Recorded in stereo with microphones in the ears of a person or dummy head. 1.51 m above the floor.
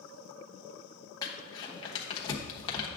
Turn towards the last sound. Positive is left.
turn(degrees=25)  # may be behind; listen again after turning